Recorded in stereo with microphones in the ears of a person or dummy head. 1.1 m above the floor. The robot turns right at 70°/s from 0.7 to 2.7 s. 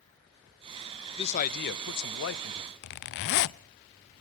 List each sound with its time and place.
1.2 s a man speaking: 30° left, 0.7 m; by 2.7 s 140° left, 0.7 m
2.8 s a zipper: 60° left (ahead or behind), 0.5 m